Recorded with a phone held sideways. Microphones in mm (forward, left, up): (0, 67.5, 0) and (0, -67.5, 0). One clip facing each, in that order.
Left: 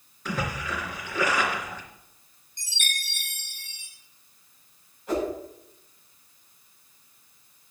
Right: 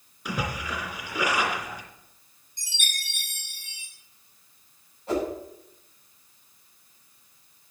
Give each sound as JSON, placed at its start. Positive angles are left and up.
{"t": 0.2, "sound": "a splash", "side_deg": -10, "distance_m": 3.0}
{"t": 2.6, "sound": "a chime", "side_deg": -15, "distance_m": 7.0}
{"t": 5.1, "sound": "a whoosh", "side_deg": -30, "distance_m": 7.0}